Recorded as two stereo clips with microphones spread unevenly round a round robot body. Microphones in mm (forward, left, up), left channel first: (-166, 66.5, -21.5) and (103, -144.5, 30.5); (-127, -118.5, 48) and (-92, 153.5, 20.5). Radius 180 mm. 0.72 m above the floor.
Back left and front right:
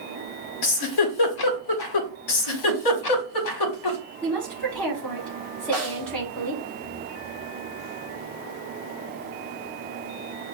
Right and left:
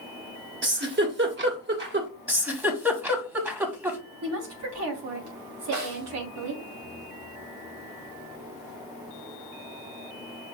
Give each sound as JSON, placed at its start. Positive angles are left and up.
{"t": 0.6, "sound": "a giggle", "azimuth_deg": 130, "distance_m": 1.6}
{"t": 2.3, "sound": "a giggle", "azimuth_deg": 165, "distance_m": 1.4}
{"t": 4.2, "sound": "a woman speaking", "azimuth_deg": 60, "distance_m": 2.0}
{"t": 5.7, "sound": "a snare drum", "azimuth_deg": 95, "distance_m": 3.5}